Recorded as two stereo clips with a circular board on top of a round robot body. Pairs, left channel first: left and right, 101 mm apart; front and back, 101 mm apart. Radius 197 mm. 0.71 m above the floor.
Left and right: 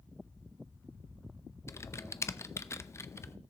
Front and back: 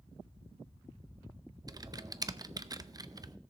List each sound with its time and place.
1.7 s typing on a keyboard: 145° left, 0.7 m